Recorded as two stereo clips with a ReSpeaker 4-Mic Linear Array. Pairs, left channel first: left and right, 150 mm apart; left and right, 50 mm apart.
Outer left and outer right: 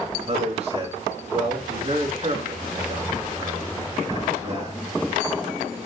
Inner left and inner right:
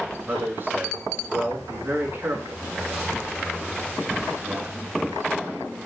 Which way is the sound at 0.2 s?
45° right (ahead or behind).